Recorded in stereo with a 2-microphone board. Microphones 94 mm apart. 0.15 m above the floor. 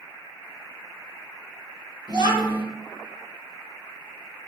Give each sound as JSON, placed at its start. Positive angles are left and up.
{"t": 2.1, "sound": "a child speaking", "side_deg": -50, "distance_m": 1.9}